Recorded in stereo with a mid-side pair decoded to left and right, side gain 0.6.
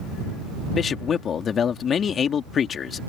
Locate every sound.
0.7 s a man speaking: 45° left